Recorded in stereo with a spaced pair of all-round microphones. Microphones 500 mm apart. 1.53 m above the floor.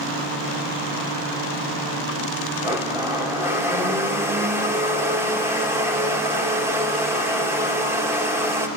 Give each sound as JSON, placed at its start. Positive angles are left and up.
{"t": 2.6, "sound": "a blender", "side_deg": -5, "distance_m": 2.5}